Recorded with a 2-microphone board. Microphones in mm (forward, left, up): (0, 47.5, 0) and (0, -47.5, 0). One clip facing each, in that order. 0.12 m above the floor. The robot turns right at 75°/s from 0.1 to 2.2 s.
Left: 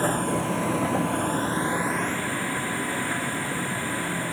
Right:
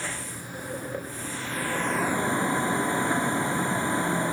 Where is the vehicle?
40° left; by 4.3 s 160° right.